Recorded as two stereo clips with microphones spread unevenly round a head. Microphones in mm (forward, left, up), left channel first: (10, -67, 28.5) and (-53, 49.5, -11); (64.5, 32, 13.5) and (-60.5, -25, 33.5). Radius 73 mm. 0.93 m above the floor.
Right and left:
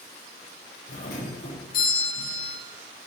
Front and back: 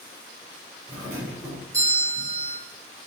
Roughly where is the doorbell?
Right.